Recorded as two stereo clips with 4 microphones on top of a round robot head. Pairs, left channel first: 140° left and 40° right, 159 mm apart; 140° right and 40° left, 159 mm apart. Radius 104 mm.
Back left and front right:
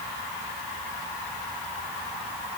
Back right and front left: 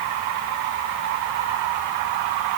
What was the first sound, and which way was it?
Only background noise.